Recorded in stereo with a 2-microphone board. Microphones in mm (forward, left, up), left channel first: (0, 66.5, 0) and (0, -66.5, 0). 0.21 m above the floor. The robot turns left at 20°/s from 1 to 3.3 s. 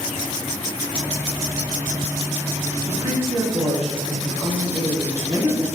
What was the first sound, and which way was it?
A woman speaking, 20° right (ahead or behind).